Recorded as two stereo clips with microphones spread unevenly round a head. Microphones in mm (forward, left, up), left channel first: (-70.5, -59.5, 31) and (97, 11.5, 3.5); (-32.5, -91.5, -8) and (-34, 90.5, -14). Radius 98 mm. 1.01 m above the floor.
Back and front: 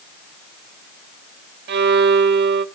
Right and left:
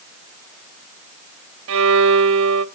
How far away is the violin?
About 0.7 m.